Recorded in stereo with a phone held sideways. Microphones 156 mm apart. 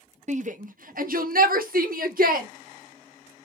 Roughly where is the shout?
Right.